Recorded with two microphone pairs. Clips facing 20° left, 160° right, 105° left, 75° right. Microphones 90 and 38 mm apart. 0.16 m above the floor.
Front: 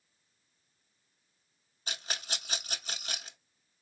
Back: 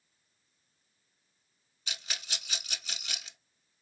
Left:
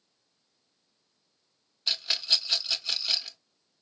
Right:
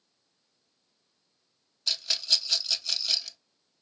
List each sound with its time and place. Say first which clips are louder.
1.9 s a rattle: front 3 dB, left 1 dB; 40° left, 0.5 m